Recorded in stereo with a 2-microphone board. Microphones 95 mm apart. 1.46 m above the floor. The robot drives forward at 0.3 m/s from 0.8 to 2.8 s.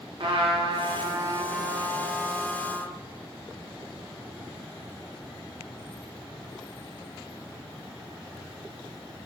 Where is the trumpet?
60° right (ahead or behind), 0.5 m; by 3.0 s 30° right (ahead or behind), 0.9 m.